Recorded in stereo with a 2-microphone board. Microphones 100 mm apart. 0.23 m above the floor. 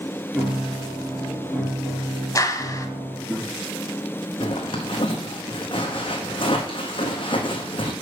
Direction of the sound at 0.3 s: Centre (ahead or behind).